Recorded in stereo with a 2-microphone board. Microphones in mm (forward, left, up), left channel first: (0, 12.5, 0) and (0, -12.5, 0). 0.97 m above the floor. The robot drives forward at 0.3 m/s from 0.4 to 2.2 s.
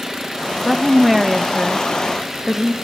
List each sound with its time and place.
0.7 s a woman speaking: 5° right (ahead or behind), 1.2 m; by 2.7 s 10° right (ahead or behind), 0.9 m